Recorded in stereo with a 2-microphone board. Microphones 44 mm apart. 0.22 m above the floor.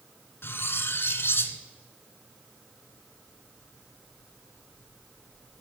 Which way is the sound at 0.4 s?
65° left (ahead or behind).